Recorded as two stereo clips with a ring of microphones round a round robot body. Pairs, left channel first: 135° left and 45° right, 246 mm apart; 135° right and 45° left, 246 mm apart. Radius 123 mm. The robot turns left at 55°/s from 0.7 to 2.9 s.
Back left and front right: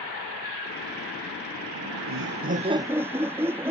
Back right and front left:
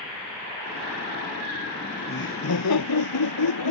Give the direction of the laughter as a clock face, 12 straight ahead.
2 o'clock.